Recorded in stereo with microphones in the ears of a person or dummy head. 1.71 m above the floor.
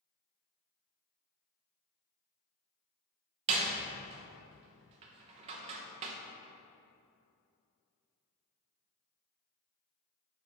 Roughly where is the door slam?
Right.